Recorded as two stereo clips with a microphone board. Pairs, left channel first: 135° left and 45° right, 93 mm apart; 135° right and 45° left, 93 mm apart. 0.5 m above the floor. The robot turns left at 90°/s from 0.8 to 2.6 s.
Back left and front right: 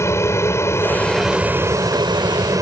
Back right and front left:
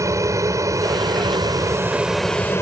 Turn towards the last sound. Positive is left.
turn(degrees=-85)